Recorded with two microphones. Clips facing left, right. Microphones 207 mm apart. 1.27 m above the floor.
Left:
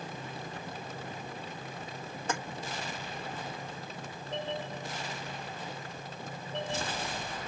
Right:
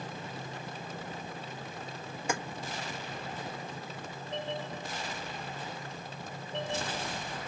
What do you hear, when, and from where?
2.3 s keys jangling: 10° right (ahead or behind), 1.3 m